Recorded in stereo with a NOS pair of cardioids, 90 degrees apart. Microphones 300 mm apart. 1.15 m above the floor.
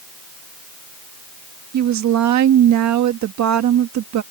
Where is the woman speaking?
65° right.